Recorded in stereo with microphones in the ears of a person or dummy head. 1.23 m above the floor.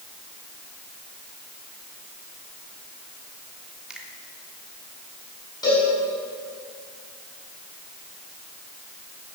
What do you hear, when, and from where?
3.9 s a finger snap: 5° right (ahead or behind), 2.5 m
5.6 s a cowbell: 25° left (ahead or behind), 7 m